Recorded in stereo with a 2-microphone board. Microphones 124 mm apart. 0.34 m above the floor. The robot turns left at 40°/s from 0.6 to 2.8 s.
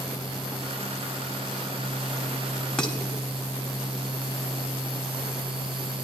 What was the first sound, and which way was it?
Dishes clattering, 10° left (ahead or behind).